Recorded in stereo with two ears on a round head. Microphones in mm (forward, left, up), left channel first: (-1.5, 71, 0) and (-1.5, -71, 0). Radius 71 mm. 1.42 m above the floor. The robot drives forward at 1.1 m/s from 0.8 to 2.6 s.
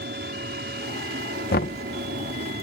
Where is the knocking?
70° left (ahead or behind); by 1.8 s 55° left (ahead or behind).